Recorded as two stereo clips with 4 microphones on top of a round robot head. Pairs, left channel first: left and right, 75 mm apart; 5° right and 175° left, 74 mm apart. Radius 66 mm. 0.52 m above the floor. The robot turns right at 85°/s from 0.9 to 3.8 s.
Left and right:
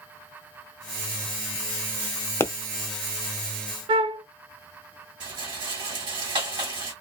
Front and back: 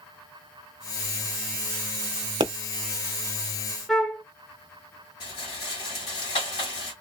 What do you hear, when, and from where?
2.4 s a pop: 150° left, 0.6 m; by 2.5 s 160° left, 0.6 m
3.9 s a flute: 90° right, 0.7 m
5.2 s a rattle: 45° right, 1.7 m